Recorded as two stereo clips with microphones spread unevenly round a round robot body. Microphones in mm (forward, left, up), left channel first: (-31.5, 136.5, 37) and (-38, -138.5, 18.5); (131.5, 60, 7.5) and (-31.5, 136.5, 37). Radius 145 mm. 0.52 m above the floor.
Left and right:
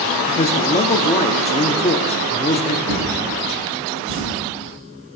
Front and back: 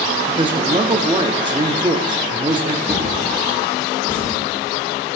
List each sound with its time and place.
0.3 s a man speaking: 115° left, 0.8 m
2.9 s a drawer: 135° right, 7 m